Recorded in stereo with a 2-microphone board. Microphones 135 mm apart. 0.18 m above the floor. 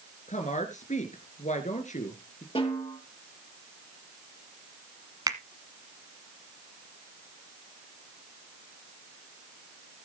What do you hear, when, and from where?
0.3 s a woman speaking: 65° left (ahead or behind), 3 m
2.5 s a snare drum: 45° left (ahead or behind), 5 m
5.3 s a finger snap: 30° right (ahead or behind), 1.2 m